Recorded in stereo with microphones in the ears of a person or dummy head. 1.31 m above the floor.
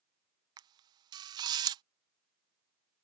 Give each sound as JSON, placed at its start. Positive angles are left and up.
{"t": 0.6, "sound": "a camera shutter", "side_deg": -25}